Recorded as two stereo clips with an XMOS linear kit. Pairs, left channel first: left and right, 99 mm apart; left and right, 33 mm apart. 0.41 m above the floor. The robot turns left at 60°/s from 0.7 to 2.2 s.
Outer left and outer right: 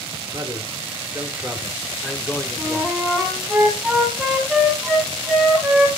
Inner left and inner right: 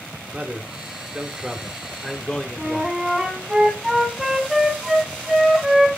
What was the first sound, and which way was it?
A man speaking, 110° right.